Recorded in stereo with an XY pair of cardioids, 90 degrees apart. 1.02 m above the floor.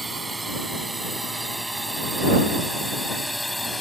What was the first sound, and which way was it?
A drone, 20° right.